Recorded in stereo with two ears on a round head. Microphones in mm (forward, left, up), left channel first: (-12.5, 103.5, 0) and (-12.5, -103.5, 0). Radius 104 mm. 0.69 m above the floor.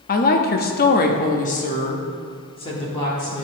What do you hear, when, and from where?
0.1 s a woman speaking: 40° left (ahead or behind), 0.8 m; by 3.4 s 20° left (ahead or behind), 1.7 m